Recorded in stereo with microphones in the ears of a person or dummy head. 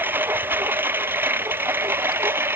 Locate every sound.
0.0 s a lawn mower: 10° right (ahead or behind); by 2.6 s 15° right (ahead or behind)